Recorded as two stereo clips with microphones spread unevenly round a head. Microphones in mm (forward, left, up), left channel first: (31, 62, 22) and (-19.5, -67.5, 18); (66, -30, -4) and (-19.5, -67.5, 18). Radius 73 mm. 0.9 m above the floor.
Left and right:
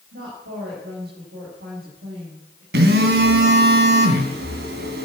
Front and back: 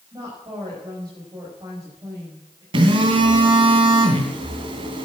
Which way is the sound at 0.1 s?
110° right.